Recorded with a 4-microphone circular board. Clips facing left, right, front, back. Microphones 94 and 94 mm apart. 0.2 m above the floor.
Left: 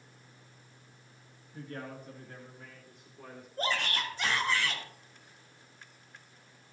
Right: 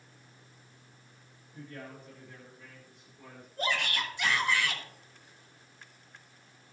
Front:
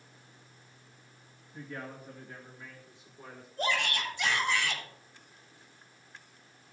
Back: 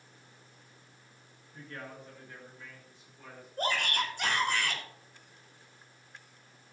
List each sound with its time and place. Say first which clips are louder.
1.5 s a man speaking: left 3 dB, front 3 dB; 80° left, 2.5 m; by 3.5 s 65° left, 4 m
3.6 s a shout: even, even; 140° left, 5 m